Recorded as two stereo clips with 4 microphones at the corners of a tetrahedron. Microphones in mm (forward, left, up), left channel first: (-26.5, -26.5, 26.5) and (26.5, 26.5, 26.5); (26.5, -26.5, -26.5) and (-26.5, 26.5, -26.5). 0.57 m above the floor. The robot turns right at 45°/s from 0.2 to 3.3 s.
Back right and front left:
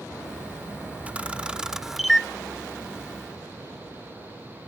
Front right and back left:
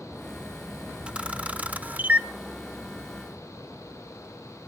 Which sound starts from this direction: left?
A camera shutter, at 1.1 s.